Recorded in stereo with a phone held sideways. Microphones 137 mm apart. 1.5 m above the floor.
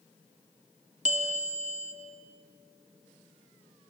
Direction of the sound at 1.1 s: 65° right (ahead or behind).